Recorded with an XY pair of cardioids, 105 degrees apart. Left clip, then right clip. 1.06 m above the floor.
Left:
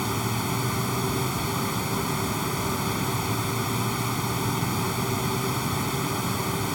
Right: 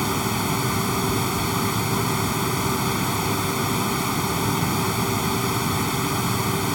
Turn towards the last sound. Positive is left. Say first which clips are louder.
# right 4 dB
turn(degrees=-30)